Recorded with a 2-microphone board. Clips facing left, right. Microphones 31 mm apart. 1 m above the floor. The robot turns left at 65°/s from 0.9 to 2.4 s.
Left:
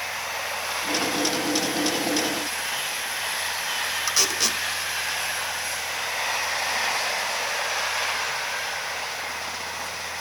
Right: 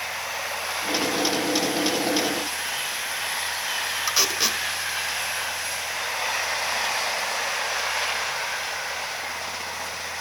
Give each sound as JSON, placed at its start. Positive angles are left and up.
{"t": 4.1, "sound": "tape being pulled", "side_deg": -15, "distance_m": 1.7}